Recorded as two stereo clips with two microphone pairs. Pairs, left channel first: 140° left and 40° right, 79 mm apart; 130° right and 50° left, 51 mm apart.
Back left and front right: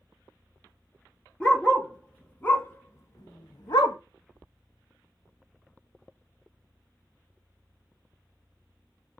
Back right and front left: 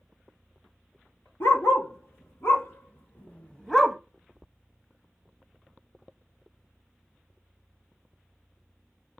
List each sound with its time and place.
1.4 s a dog barking: 140° right, 1.8 m; by 4.0 s 135° left, 0.6 m